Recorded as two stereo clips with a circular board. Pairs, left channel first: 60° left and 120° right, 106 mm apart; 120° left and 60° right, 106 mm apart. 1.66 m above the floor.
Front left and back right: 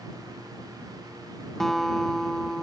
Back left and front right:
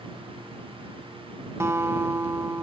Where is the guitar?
25° right.